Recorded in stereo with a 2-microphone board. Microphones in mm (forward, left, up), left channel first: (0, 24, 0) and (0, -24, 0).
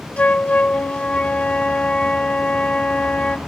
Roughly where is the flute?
Left.